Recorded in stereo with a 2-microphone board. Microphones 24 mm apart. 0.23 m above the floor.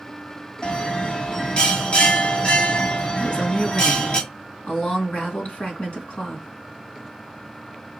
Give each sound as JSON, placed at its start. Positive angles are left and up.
{"t": 0.6, "sound": "a bell", "side_deg": 40, "distance_m": 1.8}
{"t": 3.2, "sound": "a woman speaking", "side_deg": 60, "distance_m": 2.5}